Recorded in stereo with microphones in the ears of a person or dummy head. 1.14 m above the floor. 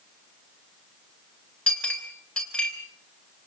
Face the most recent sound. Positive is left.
turn(degrees=5)  # may be behind; listen again after turning